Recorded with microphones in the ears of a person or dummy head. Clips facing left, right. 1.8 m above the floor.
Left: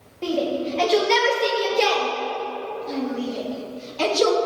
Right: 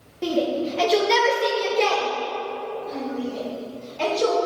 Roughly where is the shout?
Centre.